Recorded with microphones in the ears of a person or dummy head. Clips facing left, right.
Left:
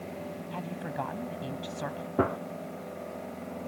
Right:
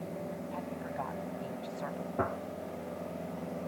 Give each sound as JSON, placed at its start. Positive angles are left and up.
{"t": 0.5, "sound": "a woman speaking", "side_deg": 50}
{"t": 2.2, "sound": "a gunshot", "side_deg": 45}